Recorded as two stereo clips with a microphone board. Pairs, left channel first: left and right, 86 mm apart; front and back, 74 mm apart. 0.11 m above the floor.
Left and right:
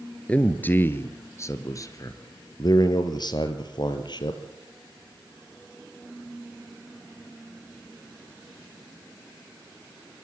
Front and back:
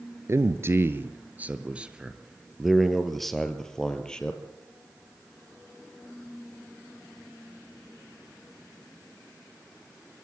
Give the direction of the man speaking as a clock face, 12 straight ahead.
7 o'clock.